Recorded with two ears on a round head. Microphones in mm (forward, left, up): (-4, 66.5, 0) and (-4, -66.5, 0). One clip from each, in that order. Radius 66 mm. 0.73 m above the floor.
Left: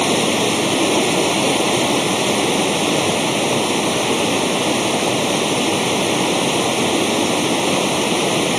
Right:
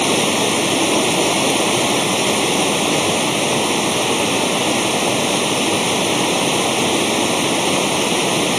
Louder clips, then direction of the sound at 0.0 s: Even; 15° right (ahead or behind).